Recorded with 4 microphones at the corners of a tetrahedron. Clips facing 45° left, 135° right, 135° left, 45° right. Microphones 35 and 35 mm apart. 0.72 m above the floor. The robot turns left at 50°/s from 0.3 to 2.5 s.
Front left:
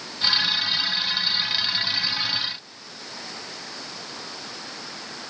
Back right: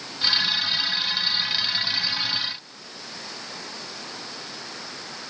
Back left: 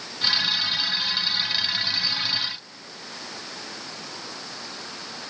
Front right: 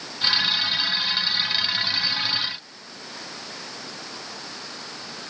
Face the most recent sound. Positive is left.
No sound to turn to.